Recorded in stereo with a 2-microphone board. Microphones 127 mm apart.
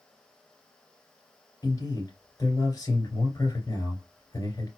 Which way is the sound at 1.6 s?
30° left (ahead or behind).